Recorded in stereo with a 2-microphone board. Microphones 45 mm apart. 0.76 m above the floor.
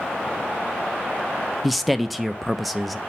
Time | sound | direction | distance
1.6 | a man speaking | centre (ahead or behind) | 0.5 m